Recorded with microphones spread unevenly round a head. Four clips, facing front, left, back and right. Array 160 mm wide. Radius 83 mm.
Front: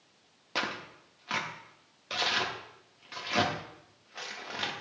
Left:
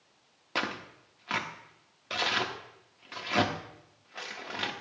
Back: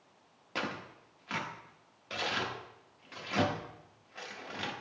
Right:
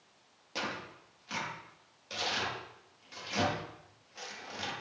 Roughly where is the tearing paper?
Left.